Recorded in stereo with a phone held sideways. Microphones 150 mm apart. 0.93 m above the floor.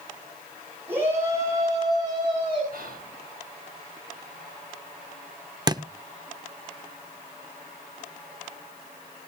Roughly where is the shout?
Centre.